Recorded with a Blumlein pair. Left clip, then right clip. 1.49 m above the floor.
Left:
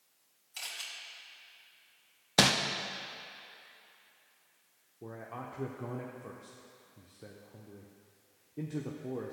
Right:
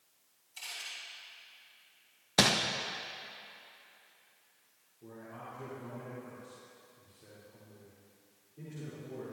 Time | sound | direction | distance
0.6 | a camera shutter | 35° left | 2.5 m
2.4 | crumpling | 5° left | 0.5 m
5.0 | a man speaking | 55° left | 0.7 m